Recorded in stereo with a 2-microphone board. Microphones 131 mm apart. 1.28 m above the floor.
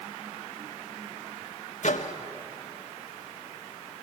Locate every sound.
1.8 s a microwave: 65° left (ahead or behind), 1.4 m